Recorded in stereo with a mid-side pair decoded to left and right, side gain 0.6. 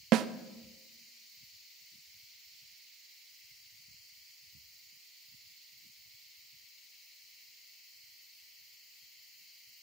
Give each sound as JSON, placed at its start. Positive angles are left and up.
{"t": 0.1, "sound": "a snare drum", "azimuth_deg": -55, "distance_m": 0.8}